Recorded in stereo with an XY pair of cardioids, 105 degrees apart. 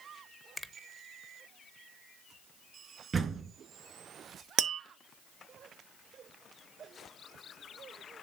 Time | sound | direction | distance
0.6 | a finger snap | 10° left | 0.8 m
3.1 | a door slam | 35° right | 2 m
4.6 | tapping | 60° right | 0.9 m